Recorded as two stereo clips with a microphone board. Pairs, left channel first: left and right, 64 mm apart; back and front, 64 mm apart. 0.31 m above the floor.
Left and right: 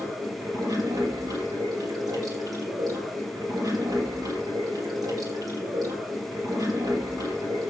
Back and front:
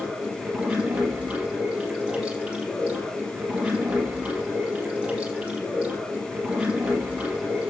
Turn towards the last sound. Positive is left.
turn(degrees=-70)